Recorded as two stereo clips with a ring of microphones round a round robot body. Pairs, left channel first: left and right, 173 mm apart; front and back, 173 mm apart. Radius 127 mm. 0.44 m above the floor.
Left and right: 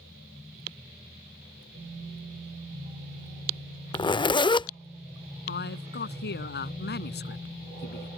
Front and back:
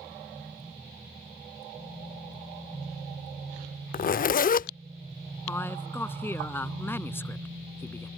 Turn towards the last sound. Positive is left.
turn(degrees=75)